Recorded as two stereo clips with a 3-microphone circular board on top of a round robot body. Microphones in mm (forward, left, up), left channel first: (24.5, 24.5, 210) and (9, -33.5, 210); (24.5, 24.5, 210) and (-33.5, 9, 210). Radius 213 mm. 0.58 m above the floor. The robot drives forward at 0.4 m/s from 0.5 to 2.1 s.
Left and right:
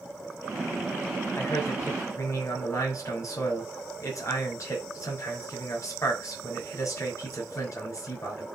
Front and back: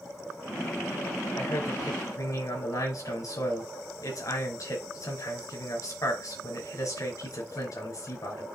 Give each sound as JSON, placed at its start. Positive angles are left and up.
{"t": 1.4, "sound": "a man speaking", "azimuth_deg": 40, "distance_m": 5.5}